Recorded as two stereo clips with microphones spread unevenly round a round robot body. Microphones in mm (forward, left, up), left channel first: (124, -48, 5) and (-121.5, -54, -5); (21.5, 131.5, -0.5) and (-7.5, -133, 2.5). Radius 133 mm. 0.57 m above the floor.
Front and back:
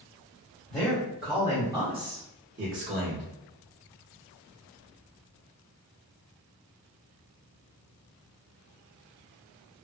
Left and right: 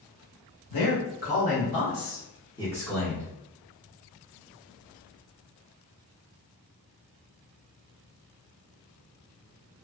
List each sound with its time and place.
0.7 s a man speaking: 85° left, 1.4 m; by 3.2 s straight behind, 1.1 m